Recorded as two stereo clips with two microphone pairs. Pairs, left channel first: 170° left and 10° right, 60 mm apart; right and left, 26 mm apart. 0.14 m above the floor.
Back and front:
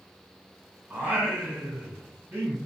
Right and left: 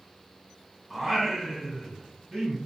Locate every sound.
0.9 s singing: straight ahead, 1.7 m